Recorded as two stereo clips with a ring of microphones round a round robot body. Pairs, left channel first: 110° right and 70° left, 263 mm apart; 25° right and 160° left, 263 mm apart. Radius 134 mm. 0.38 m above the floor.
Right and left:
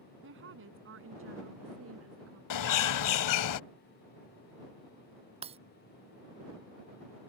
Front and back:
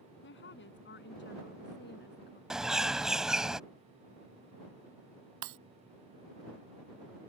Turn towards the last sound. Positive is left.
turn(degrees=135)